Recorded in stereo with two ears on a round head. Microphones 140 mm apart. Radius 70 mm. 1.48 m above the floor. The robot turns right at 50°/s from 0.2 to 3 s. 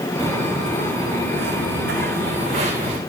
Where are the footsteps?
20° right (ahead or behind), 6 m; by 3.0 s 30° right (ahead or behind), 4.5 m.